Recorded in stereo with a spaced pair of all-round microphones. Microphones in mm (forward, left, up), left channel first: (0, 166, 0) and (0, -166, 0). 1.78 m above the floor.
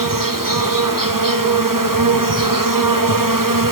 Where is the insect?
70° right (ahead or behind), 1.4 m.